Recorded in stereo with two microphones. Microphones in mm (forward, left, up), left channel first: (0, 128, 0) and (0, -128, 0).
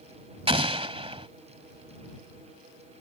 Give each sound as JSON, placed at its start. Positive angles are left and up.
{"t": 0.5, "sound": "an explosion", "side_deg": -25}